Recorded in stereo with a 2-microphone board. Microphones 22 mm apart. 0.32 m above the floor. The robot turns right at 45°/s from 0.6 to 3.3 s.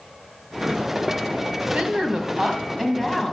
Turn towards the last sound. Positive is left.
turn(degrees=5)